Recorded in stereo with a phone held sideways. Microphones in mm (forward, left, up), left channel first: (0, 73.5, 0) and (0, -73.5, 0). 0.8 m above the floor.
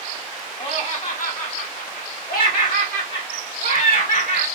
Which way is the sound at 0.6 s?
40° left (ahead or behind).